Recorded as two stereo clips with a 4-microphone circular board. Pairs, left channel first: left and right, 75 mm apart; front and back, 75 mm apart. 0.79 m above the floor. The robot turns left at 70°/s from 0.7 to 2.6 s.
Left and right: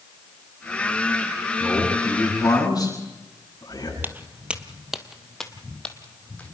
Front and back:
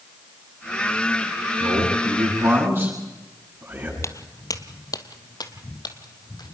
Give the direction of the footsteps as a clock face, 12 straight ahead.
1 o'clock.